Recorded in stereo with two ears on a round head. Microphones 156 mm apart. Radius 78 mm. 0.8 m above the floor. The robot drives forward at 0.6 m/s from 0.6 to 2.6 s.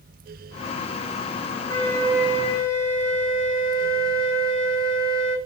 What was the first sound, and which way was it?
A flute, 15° left (ahead or behind).